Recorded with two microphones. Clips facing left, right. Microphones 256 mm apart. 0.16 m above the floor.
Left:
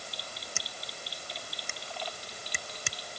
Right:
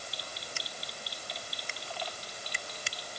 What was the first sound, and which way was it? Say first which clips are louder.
Scissors: even; 55° left (ahead or behind).